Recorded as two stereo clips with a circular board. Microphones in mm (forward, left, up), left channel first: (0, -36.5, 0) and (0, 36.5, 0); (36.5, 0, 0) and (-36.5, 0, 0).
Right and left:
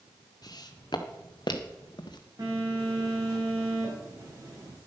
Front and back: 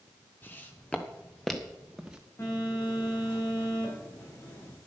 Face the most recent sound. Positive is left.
turn(degrees=60)